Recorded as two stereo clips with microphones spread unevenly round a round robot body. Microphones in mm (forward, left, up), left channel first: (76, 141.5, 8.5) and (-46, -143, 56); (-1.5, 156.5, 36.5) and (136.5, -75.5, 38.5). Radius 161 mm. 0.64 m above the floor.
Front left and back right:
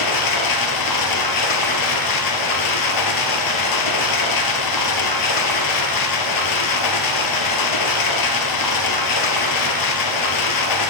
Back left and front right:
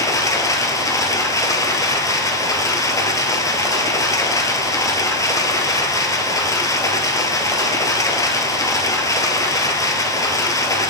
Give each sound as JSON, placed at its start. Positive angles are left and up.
{"t": 0.0, "sound": "running water", "azimuth_deg": 45, "distance_m": 1.5}